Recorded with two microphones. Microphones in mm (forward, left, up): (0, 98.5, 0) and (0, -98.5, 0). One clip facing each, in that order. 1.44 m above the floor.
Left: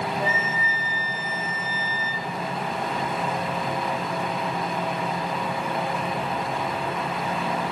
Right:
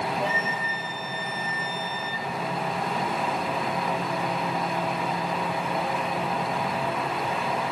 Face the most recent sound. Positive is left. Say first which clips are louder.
# left 1 dB
turn(degrees=5)  # may be behind; listen again after turning